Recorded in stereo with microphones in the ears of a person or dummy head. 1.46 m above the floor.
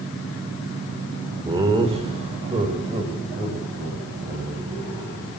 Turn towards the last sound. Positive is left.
turn(degrees=-30)  # may be behind; listen again after turning